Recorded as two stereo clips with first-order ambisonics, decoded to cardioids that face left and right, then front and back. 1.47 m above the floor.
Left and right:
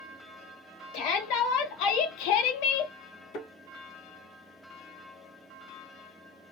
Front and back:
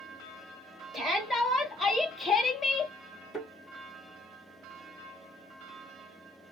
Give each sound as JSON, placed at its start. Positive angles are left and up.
{"t": 0.9, "sound": "a shout", "azimuth_deg": 100, "distance_m": 1.8}
{"t": 3.3, "sound": "a thud", "azimuth_deg": 105, "distance_m": 2.5}